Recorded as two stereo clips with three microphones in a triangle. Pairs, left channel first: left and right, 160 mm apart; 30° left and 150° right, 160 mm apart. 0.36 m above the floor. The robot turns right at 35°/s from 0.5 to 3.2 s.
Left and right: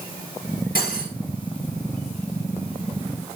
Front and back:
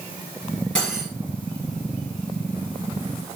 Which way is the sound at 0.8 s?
115° left.